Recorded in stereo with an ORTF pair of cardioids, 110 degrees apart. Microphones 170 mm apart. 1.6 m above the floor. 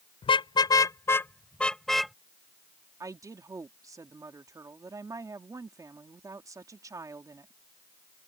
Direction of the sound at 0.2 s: 35° left.